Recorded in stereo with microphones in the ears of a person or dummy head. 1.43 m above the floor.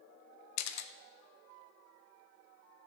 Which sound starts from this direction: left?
A camera shutter, at 0.6 s.